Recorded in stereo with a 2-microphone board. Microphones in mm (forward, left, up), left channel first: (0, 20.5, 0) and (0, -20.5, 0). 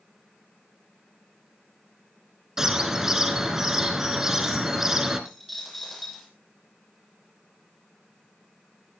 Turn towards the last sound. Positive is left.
turn(degrees=0)  # may be behind; listen again after turning